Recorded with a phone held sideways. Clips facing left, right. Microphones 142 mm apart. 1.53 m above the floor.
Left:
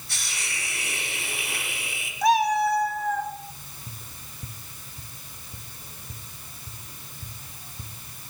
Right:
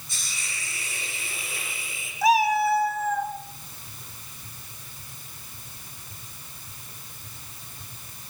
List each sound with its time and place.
0.1 s a hiss: 70° left (ahead or behind), 4 m
2.2 s a cat meowing: centre (ahead or behind), 2.0 m
3.9 s tapping: 65° left (ahead or behind), 3 m